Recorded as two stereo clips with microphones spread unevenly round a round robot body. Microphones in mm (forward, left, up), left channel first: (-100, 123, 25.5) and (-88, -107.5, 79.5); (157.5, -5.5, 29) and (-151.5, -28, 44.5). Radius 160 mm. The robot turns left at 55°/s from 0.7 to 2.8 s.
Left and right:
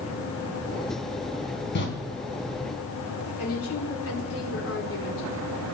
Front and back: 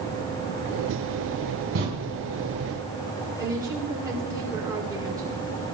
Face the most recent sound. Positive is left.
turn(degrees=105)